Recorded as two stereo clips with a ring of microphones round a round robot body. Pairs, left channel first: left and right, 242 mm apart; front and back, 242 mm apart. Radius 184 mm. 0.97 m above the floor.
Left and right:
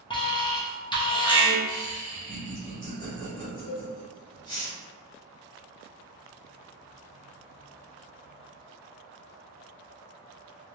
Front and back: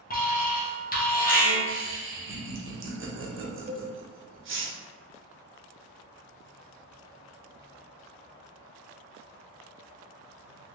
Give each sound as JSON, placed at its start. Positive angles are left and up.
{"t": 0.1, "sound": "an alarm", "azimuth_deg": 30, "distance_m": 1.2}
{"t": 1.7, "sound": "laughter", "azimuth_deg": 160, "distance_m": 1.2}
{"t": 3.7, "sound": "a cowbell", "azimuth_deg": 115, "distance_m": 0.7}